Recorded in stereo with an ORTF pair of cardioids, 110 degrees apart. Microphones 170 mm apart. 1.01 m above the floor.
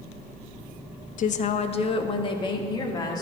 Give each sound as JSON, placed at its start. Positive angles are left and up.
{"t": 1.2, "sound": "a woman speaking", "azimuth_deg": 50, "distance_m": 0.6}